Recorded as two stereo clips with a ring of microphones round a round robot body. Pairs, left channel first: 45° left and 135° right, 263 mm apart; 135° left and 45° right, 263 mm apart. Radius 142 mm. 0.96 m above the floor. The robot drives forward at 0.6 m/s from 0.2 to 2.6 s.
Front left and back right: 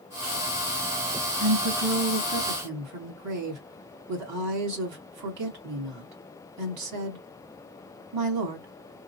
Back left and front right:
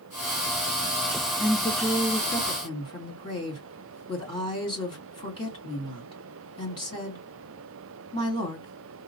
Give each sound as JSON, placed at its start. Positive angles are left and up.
{"t": 1.4, "sound": "a woman speaking", "azimuth_deg": -140, "distance_m": 2.0}